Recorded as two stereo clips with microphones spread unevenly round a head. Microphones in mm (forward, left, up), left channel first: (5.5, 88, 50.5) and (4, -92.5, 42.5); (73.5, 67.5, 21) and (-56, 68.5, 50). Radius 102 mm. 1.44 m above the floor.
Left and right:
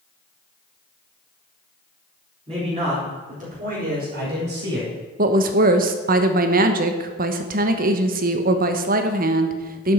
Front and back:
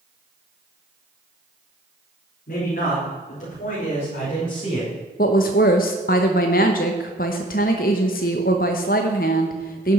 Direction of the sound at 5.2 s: 45° right.